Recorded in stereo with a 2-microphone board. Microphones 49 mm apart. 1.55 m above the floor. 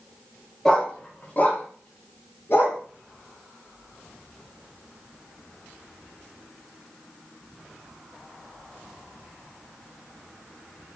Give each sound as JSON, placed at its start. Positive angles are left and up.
{"t": 0.7, "sound": "a dog barking", "side_deg": 15, "distance_m": 1.0}